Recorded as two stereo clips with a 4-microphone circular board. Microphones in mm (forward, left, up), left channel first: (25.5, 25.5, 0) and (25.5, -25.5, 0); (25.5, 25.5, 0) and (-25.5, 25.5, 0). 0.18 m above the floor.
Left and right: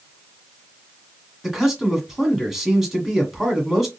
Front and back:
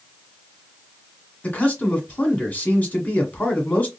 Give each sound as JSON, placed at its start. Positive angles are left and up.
{"t": 1.4, "sound": "a man speaking", "azimuth_deg": -5, "distance_m": 1.5}